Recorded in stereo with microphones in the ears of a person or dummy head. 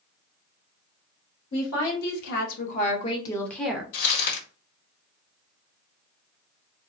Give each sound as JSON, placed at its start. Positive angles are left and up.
{"t": 1.5, "sound": "a woman speaking", "side_deg": 70, "distance_m": 1.3}
{"t": 3.9, "sound": "crumpling", "side_deg": 55, "distance_m": 1.4}